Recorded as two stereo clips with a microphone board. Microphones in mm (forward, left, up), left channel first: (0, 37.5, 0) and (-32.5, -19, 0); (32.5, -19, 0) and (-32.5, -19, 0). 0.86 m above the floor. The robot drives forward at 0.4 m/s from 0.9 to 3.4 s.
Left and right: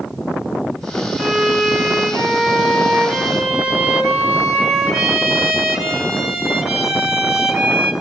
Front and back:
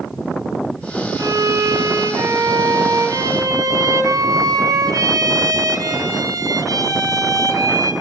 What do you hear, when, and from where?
1.2 s a violin: 150° left, 4.5 m; by 7.9 s 155° left, 5.5 m